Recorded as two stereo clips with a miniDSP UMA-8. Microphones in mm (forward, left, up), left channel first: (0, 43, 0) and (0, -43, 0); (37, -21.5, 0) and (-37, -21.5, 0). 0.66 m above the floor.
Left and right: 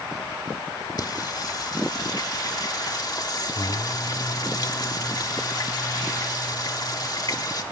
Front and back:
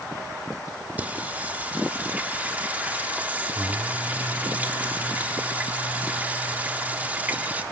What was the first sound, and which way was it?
Singing, 115° left.